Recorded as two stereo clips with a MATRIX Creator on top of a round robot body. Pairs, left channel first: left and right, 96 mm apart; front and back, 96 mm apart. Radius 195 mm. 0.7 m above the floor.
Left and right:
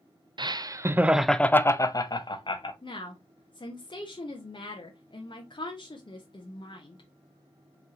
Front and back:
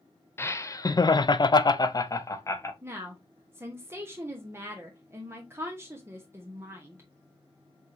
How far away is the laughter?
About 0.8 m.